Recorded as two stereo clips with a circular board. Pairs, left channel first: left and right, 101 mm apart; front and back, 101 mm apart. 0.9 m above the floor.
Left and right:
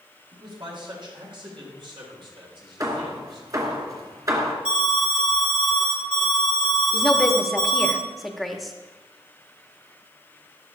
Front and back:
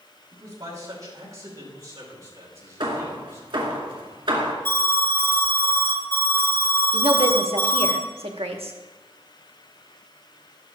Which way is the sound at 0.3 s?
125° right.